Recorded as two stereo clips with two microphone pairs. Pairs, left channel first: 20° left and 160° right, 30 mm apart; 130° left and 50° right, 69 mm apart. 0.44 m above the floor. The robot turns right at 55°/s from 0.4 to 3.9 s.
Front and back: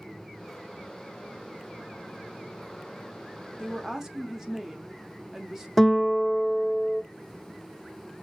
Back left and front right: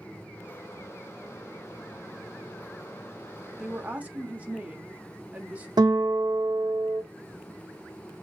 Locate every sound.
3.6 s a woman speaking: 120° right, 0.8 m; by 5.7 s 105° right, 0.8 m
5.8 s a guitar: 65° right, 0.5 m